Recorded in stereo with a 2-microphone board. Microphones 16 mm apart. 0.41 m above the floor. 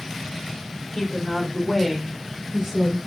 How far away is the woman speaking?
About 1.3 m.